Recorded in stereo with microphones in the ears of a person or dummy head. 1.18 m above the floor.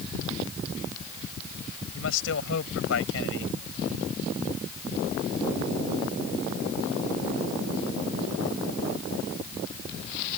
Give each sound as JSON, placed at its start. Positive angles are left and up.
{"t": 1.9, "sound": "a man speaking", "side_deg": 75}